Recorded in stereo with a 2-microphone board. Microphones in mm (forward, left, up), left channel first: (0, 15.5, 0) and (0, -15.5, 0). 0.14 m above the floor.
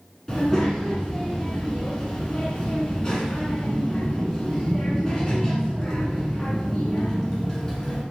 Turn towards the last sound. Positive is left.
turn(degrees=20)  # may be behind; listen again after turning